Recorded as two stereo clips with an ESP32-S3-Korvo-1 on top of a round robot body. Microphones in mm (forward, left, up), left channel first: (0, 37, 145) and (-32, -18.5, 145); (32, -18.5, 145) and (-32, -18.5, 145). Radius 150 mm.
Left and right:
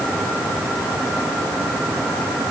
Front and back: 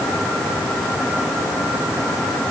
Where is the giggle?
I don't hear a giggle.